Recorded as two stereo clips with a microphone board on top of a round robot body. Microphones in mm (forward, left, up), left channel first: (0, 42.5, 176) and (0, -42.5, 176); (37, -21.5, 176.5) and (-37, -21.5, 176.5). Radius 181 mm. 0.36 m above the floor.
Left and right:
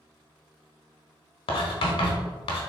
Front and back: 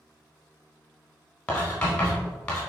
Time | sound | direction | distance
1.5 | writing | 75° left | 0.7 m